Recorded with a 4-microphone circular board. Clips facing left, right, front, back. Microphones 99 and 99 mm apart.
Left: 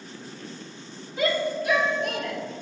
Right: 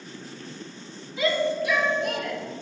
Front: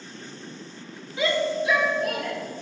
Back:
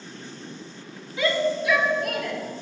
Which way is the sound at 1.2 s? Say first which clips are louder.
Right 1 dB, back 1 dB; 65° left.